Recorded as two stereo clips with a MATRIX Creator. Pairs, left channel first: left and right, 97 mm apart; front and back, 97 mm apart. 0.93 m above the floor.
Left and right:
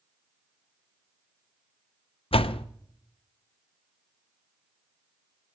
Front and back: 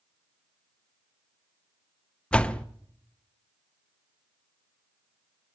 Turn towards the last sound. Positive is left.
turn(degrees=80)